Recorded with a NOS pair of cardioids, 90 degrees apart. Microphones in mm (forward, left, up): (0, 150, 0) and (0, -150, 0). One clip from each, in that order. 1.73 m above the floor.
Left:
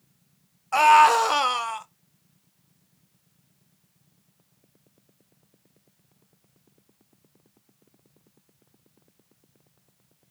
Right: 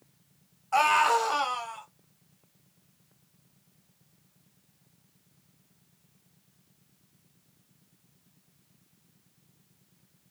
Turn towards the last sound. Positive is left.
turn(degrees=65)